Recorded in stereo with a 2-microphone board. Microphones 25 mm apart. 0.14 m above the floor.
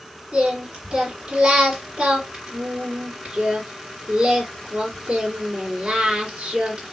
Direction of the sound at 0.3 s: 50° right (ahead or behind).